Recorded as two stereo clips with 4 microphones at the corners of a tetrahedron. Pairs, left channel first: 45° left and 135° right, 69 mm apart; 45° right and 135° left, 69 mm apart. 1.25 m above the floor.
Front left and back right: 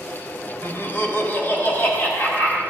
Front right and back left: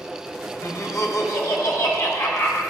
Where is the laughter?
10° right, 0.7 m; by 2.6 s 15° right, 1.8 m.